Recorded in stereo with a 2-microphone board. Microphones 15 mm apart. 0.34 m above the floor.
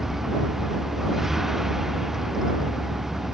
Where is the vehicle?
25° right (ahead or behind).